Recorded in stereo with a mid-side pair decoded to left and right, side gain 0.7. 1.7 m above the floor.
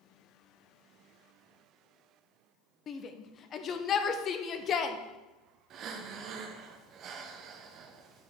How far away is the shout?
About 0.9 m.